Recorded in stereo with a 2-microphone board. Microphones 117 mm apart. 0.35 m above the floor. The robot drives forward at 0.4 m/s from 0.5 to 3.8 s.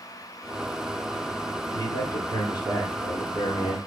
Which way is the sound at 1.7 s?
25° left (ahead or behind).